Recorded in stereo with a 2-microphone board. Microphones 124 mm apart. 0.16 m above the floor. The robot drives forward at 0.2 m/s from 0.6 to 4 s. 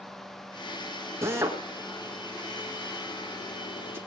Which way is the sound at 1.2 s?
20° right (ahead or behind).